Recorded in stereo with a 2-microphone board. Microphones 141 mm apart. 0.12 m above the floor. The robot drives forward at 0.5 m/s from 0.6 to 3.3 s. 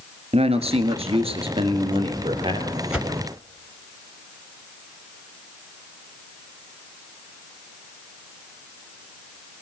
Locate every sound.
0.3 s a man speaking: 45° right (ahead or behind), 1.6 m; by 2.8 s 35° right (ahead or behind), 2 m
2.9 s a whoosh: 5° right (ahead or behind), 1.2 m